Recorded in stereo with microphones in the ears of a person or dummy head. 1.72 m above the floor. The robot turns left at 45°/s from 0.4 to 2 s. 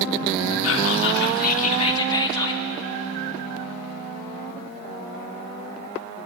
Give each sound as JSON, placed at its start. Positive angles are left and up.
{"t": 0.6, "sound": "whispering", "azimuth_deg": 85, "distance_m": 1.2}